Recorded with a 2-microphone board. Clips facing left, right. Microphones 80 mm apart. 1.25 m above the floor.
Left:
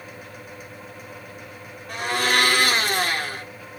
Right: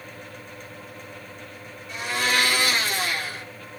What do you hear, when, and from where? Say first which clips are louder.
1.9 s a blender: left 3 dB; 55° left (ahead or behind), 1.2 m